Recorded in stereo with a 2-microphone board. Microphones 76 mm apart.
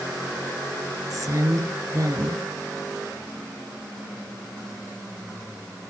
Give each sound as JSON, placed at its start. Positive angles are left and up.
{"t": 1.1, "sound": "a woman speaking", "side_deg": -50, "distance_m": 1.7}